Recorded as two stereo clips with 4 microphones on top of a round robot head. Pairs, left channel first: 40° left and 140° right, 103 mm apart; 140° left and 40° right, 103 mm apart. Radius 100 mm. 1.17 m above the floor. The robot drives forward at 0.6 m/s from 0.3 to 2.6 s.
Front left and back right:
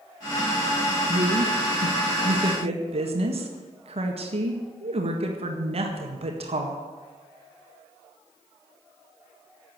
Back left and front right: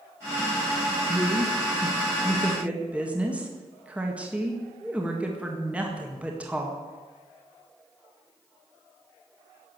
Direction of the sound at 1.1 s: 90° right.